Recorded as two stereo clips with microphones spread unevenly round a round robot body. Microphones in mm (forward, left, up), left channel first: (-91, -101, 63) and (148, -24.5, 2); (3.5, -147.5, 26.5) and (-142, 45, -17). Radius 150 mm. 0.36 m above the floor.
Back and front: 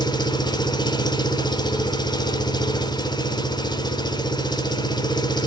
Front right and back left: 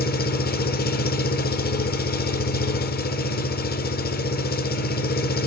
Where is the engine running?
80° right, 1.1 m.